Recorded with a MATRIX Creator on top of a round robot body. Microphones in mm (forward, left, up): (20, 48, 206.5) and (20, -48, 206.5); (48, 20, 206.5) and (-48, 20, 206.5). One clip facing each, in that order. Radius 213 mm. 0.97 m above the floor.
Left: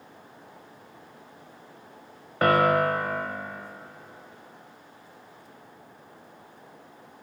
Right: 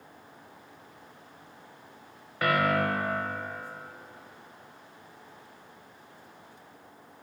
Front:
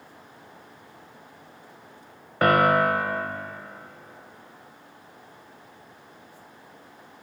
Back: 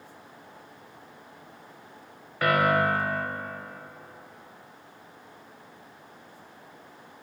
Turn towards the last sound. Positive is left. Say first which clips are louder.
# left 5 dB, front 4 dB
turn(degrees=45)